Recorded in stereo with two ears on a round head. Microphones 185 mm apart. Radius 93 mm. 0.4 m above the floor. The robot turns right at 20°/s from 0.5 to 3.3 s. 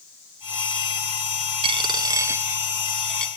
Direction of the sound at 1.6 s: 25° right (ahead or behind).